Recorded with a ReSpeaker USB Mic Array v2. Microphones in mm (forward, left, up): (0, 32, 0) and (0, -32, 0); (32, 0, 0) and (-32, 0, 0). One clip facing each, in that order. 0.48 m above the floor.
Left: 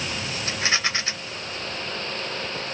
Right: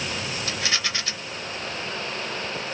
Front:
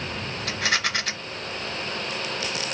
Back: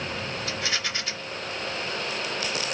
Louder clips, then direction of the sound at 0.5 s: Left 4 dB, front 7 dB; 30° left.